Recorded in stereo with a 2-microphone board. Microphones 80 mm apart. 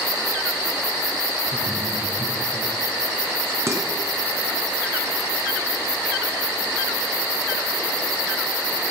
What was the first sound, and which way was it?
Laughter, 30° right (ahead or behind).